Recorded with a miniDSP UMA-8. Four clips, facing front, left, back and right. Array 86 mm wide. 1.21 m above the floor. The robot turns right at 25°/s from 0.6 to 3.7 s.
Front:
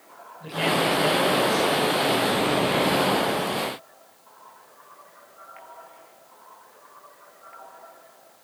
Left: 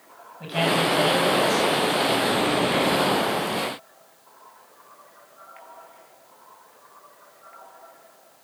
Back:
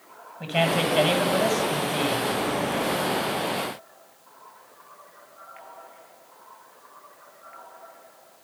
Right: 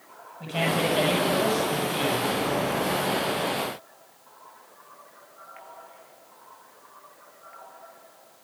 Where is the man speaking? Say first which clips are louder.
Left 3 dB, even; 170° left, 9 m; by 2.3 s 145° right, 9 m.